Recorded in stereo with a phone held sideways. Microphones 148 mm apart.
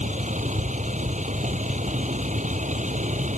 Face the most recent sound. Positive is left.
turn(degrees=-55)  # may be behind; listen again after turning